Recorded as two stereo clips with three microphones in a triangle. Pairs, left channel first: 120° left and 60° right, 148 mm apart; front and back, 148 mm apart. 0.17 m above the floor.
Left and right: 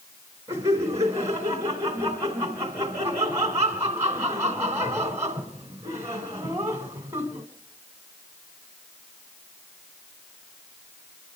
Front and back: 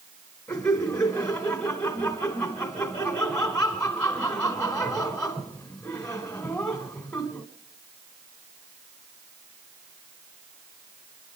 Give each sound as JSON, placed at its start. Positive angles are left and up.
{"t": 0.5, "sound": "laughter", "azimuth_deg": -65, "distance_m": 1.5}